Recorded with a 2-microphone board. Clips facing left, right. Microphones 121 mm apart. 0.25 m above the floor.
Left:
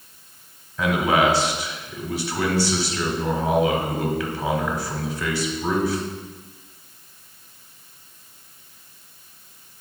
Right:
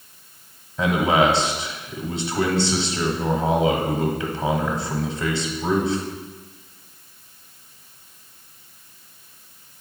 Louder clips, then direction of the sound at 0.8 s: Right 1 dB; 25° right (ahead or behind).